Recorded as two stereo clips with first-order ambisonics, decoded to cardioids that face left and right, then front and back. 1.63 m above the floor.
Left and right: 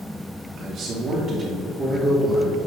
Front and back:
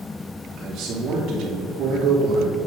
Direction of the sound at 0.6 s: 135° right.